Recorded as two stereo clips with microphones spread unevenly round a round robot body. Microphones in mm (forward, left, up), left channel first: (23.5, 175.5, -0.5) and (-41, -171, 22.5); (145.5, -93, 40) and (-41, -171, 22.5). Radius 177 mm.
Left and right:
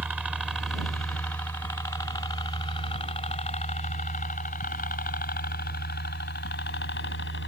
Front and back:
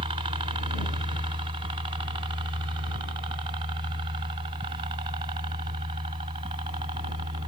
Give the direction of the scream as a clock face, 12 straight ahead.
No scream in this recording.